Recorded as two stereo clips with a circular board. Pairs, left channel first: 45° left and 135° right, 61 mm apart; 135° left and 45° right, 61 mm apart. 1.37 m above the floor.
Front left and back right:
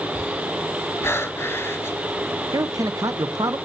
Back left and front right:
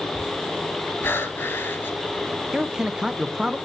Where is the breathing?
90° left, 3 m.